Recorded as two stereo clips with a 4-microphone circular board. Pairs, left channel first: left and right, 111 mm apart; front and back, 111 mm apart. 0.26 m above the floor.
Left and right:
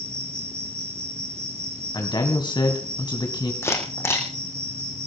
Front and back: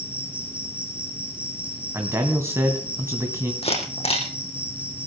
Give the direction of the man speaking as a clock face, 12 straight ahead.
8 o'clock.